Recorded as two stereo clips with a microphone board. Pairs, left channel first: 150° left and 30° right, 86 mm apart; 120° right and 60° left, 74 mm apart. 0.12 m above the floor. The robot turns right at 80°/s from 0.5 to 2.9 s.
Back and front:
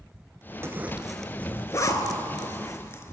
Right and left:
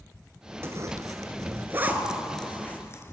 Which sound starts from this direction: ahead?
A zipper, at 0.6 s.